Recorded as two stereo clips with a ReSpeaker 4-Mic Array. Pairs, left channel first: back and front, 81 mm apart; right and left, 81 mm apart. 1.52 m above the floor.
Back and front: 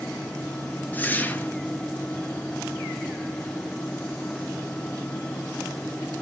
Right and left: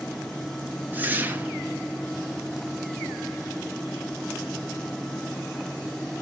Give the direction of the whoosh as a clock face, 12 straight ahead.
8 o'clock.